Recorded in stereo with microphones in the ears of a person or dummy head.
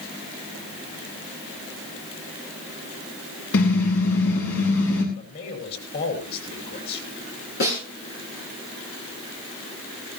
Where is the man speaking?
55° left (ahead or behind), 6 m.